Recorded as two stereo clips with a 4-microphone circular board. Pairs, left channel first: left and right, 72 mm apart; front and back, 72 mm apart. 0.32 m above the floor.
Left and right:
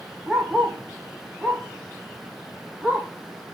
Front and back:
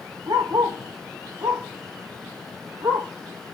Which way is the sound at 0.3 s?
170° right.